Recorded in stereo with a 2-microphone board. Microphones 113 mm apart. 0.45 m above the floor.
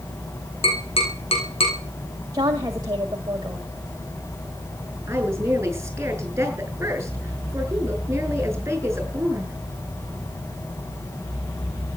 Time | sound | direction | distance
0.6 | tapping | 60° left (ahead or behind) | 6.5 m
2.3 | a woman speaking | 35° right (ahead or behind) | 1.7 m
5.1 | a woman speaking | 20° right (ahead or behind) | 9 m